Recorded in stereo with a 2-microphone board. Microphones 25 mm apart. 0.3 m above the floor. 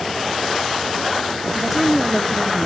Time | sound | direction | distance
1.6 | a woman speaking | 5° right (ahead or behind) | ?